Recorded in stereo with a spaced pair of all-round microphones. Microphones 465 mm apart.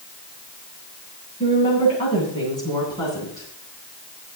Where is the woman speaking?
10° left (ahead or behind), 9.5 m.